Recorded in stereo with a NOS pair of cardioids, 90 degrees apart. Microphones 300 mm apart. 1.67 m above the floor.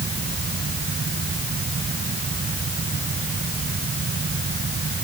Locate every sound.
0.0 s a fan: 30° right